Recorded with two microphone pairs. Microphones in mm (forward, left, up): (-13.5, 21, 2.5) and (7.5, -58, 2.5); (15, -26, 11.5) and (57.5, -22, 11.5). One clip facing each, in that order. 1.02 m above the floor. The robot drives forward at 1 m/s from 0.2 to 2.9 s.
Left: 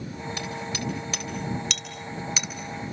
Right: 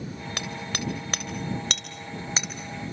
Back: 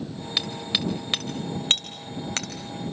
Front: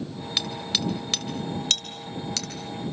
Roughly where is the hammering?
Right.